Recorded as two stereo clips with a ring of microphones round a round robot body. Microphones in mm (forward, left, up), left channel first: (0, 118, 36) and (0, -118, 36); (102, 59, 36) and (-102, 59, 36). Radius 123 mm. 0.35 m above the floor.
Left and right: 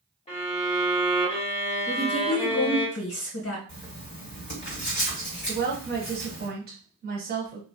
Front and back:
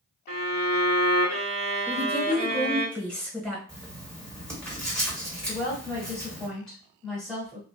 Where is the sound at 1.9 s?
85° left, 1.6 m.